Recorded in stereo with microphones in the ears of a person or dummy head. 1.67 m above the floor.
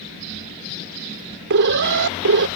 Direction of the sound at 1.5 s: 60° right (ahead or behind).